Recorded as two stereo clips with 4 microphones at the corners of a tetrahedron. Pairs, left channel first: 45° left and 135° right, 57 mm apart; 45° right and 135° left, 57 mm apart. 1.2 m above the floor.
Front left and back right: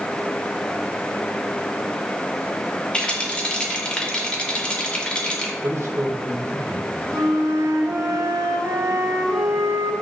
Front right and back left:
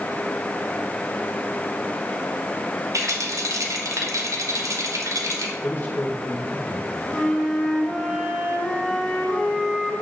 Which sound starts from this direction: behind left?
A rattle, at 2.9 s.